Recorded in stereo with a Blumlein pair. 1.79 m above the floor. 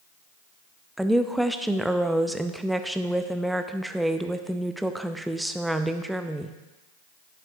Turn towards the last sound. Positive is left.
turn(degrees=-5)